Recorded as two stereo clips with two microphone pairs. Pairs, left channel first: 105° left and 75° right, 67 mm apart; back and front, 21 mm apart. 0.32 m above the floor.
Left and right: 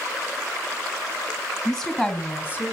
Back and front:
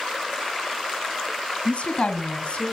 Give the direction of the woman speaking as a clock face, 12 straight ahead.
6 o'clock.